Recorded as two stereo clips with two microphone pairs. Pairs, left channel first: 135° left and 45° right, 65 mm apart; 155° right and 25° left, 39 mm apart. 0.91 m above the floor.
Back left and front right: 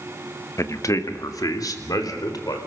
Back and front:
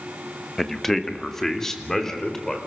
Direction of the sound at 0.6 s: 120° left.